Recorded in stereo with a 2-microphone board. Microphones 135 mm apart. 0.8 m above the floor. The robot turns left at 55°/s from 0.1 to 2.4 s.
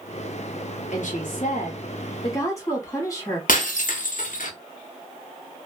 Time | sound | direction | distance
0.9 | a woman speaking | 105° left | 1.1 m
3.5 | breaking glass | 85° left | 0.6 m